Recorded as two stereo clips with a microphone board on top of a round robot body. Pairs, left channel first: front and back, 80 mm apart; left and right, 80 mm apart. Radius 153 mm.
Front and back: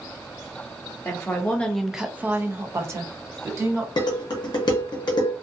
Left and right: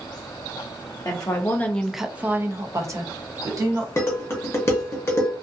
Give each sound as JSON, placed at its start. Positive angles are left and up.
{"t": 1.1, "sound": "a woman speaking", "azimuth_deg": 55, "distance_m": 0.7}
{"t": 4.0, "sound": "dishes clattering", "azimuth_deg": 30, "distance_m": 0.6}